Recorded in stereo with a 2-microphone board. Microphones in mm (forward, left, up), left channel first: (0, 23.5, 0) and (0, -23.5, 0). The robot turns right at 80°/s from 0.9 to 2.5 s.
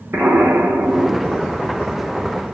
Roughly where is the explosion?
Right.